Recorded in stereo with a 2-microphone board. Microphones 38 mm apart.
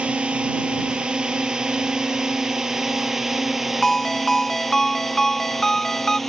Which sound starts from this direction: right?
A drone, at 0.0 s.